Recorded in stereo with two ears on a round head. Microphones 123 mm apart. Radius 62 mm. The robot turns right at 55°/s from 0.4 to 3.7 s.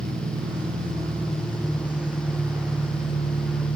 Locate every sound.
0.0 s an engine running: 95° right, 2 m; by 3.8 s 85° left, 2 m